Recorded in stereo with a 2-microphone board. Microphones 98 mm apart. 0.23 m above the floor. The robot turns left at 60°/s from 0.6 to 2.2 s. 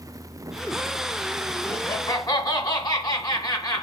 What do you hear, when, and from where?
1.6 s laughter: 145° left, 1.8 m; by 3.8 s 115° left, 1.8 m